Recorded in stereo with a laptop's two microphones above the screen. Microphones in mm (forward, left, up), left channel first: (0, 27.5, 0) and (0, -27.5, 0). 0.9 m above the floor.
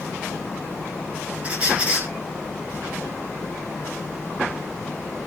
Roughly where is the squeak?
Right.